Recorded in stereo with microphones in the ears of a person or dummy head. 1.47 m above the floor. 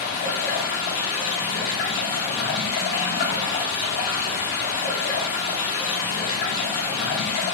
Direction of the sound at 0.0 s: 55° left (ahead or behind).